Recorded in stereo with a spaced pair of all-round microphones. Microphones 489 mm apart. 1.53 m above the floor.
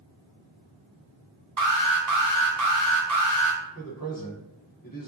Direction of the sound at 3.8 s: 45° left (ahead or behind).